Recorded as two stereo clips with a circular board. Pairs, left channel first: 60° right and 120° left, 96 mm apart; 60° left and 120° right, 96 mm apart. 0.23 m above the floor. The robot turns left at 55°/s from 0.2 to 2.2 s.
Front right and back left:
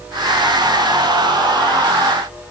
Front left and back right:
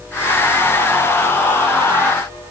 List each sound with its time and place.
Only background noise.